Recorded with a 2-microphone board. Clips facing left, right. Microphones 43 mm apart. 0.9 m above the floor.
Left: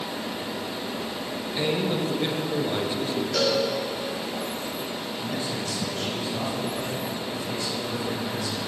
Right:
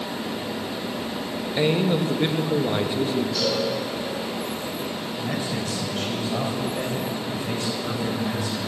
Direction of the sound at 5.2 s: 50° right (ahead or behind).